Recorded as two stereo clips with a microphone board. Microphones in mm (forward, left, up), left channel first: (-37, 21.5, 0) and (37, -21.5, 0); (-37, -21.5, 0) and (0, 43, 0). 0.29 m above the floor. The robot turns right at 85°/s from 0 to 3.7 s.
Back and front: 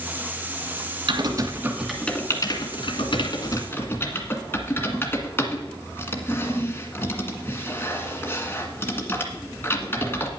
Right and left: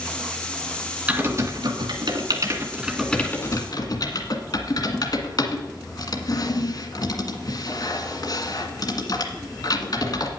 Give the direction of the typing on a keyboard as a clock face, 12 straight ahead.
12 o'clock.